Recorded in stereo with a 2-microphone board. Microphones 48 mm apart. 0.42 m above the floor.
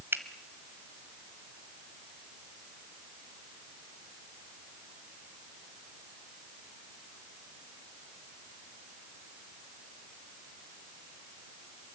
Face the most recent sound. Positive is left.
turn(degrees=-50)  # may be behind; listen again after turning